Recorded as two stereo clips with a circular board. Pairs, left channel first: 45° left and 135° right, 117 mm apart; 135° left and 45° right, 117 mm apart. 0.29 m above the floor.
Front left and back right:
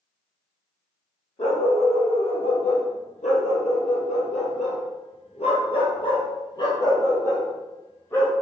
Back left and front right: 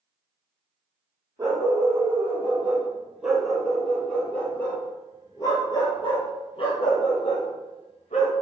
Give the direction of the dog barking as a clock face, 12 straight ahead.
11 o'clock.